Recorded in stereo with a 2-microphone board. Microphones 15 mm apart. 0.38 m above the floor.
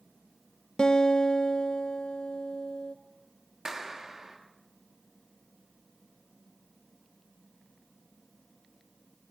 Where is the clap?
45° right (ahead or behind), 5 m.